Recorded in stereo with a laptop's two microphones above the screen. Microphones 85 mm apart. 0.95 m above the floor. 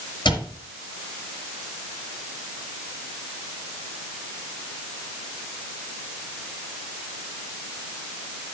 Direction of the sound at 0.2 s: 65° left (ahead or behind).